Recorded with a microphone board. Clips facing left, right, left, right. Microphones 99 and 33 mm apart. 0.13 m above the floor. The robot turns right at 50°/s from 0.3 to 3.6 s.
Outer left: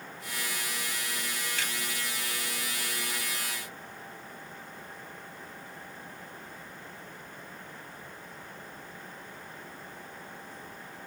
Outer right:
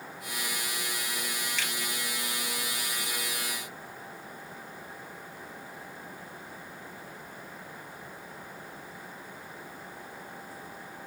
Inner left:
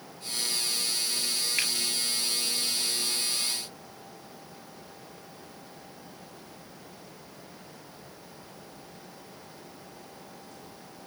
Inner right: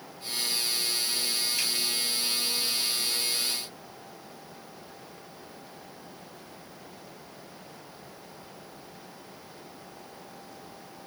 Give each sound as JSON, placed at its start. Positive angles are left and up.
{"t": 1.6, "sound": "a finger snap", "side_deg": 50, "distance_m": 2.0}